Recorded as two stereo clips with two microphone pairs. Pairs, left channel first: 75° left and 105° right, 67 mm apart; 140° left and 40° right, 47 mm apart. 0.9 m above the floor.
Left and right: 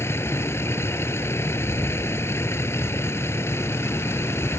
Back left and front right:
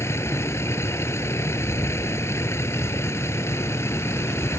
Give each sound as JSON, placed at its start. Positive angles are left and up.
{"t": 0.0, "sound": "a vehicle", "azimuth_deg": 125}